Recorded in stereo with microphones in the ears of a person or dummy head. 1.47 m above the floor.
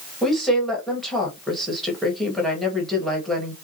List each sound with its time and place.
0.2 s a woman speaking: centre (ahead or behind), 1.5 m